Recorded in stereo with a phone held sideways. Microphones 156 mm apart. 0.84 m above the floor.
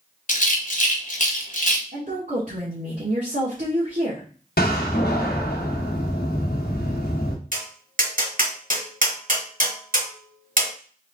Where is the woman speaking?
60° right (ahead or behind), 1.6 m.